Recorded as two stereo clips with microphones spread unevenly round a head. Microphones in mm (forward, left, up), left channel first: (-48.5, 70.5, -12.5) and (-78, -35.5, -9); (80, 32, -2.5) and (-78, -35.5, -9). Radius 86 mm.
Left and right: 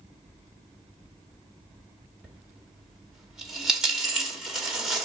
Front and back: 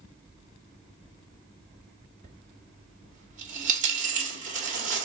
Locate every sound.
2.2 s a dropped coin: 175° left, 1.6 m